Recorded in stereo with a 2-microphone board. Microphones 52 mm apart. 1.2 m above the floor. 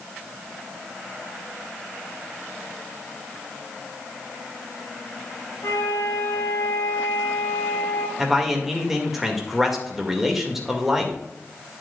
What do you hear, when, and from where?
5.6 s a flute: 75° left (ahead or behind), 3 m
8.2 s a man speaking: 5° right (ahead or behind), 1.8 m